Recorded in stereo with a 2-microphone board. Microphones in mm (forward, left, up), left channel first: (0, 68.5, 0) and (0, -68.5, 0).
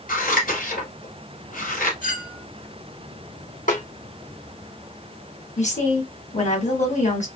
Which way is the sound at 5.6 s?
60° left (ahead or behind).